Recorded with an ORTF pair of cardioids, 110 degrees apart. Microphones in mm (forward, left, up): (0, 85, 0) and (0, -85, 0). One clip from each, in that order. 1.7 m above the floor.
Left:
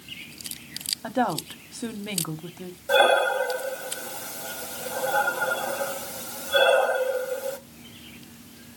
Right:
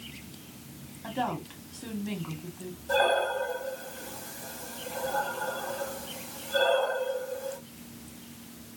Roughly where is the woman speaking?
Ahead left.